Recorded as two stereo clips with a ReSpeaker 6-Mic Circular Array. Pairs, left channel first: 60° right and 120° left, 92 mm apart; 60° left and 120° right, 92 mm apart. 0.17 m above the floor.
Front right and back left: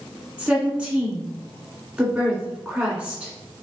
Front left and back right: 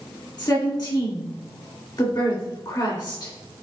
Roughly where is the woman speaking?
Ahead left.